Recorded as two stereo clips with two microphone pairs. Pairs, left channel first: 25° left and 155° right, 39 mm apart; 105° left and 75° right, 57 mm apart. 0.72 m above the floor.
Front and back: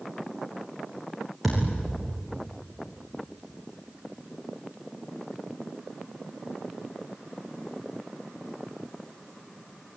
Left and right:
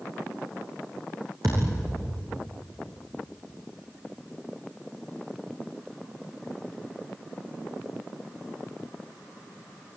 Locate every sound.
1.4 s a thud: 65° right, 7.5 m